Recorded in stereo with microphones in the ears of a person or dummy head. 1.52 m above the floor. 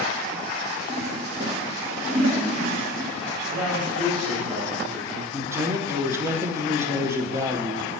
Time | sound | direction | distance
0.9 | a toilet flushing | 45° right (ahead or behind) | 1.8 m
3.5 | a man speaking | 35° right (ahead or behind) | 3.5 m
5.3 | a man speaking | 20° right (ahead or behind) | 1.0 m